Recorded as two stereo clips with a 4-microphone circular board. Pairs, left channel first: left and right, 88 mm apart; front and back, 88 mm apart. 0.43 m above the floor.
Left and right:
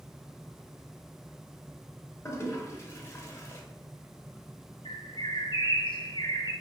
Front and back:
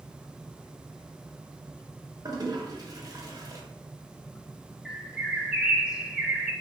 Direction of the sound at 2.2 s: 145° left.